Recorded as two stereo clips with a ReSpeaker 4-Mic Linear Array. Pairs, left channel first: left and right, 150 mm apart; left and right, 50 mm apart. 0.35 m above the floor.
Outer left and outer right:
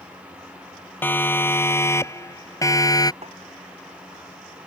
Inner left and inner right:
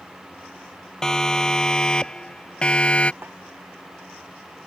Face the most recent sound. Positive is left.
turn(degrees=-45)  # may be behind; listen again after turning